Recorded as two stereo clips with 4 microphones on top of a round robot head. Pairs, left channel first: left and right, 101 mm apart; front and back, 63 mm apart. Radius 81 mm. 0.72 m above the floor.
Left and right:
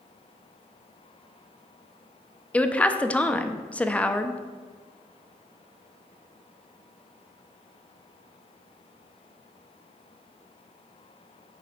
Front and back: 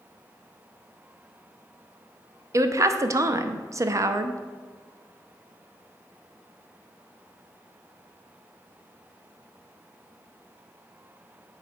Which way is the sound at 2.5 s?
165° left.